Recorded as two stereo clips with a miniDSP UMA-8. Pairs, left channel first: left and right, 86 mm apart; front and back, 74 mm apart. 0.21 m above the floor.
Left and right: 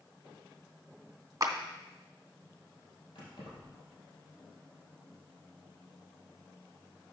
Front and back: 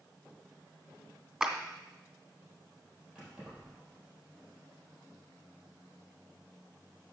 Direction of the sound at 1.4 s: 105° right.